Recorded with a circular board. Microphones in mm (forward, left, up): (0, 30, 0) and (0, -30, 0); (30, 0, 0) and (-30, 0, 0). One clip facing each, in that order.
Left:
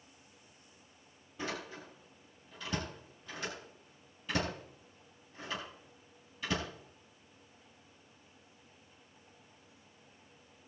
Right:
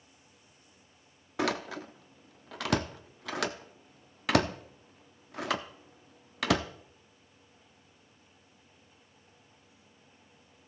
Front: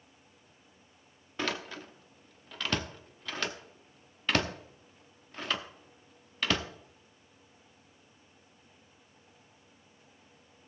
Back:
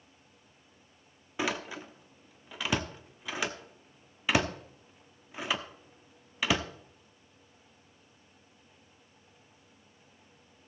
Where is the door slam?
100° right, 0.9 m.